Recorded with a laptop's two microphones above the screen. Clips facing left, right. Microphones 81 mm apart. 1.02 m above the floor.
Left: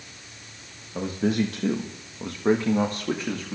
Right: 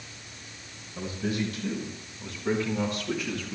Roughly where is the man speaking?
Left.